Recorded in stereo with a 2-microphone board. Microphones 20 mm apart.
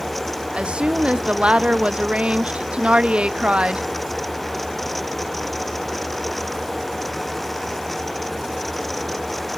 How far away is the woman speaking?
About 1.0 m.